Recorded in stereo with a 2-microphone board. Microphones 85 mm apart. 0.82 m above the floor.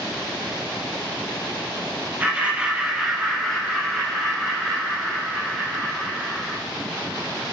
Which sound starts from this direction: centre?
Laughter, at 2.2 s.